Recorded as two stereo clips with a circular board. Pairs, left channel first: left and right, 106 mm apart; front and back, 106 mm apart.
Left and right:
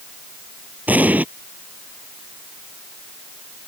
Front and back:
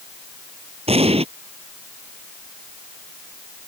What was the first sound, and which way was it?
An explosion, 165° right.